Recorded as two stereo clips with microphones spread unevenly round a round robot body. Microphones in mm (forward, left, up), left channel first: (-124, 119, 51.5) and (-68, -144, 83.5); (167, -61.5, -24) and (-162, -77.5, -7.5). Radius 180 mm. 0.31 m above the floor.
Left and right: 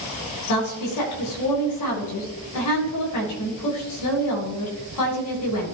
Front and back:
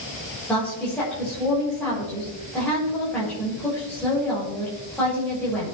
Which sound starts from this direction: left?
A woman speaking, at 0.5 s.